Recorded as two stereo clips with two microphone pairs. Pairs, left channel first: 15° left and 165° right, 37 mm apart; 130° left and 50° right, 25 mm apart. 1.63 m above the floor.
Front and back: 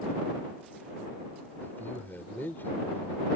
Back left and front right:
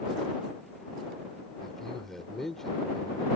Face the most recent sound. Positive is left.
turn(degrees=50)